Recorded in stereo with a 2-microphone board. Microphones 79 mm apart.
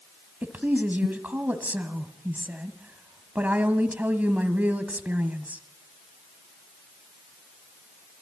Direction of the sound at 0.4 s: 20° right (ahead or behind).